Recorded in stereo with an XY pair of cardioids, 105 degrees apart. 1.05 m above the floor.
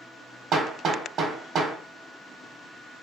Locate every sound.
0.5 s hammering: 65° right, 1.4 m